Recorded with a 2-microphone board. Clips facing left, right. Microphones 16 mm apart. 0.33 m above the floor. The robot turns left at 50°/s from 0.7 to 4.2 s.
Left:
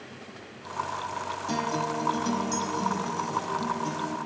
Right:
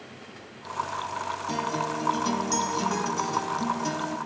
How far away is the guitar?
About 0.6 m.